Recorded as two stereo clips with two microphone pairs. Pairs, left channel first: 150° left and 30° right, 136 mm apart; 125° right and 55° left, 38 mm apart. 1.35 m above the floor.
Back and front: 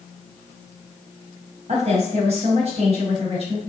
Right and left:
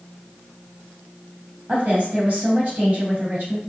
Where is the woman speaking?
5° left, 1.1 m.